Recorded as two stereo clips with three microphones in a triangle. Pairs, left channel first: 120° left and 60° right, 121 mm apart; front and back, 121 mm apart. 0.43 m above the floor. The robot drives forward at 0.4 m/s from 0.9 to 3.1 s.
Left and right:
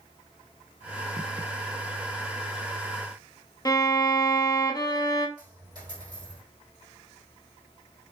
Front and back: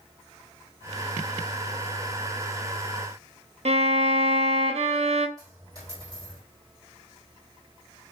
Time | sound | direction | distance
3.6 | a violin | 175° left | 0.7 m
5.4 | a dropped coin | 120° right | 3.5 m